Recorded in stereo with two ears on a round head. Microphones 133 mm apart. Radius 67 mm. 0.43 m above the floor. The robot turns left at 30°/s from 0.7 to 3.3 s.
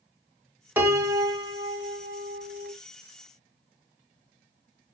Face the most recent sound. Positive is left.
turn(degrees=-90)